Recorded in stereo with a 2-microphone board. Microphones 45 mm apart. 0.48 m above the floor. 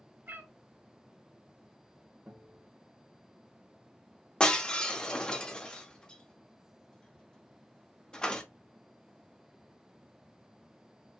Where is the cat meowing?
55° right (ahead or behind), 1.1 m.